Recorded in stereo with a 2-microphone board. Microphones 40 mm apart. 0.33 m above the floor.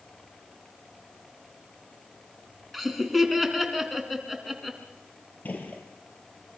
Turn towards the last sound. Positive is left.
turn(degrees=40)  # may be behind; listen again after turning